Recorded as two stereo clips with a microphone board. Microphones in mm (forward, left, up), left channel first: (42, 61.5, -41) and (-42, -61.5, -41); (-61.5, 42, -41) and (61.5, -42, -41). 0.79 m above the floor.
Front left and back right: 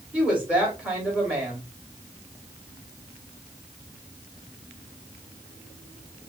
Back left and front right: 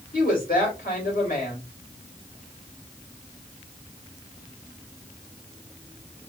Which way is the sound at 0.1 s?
155° left.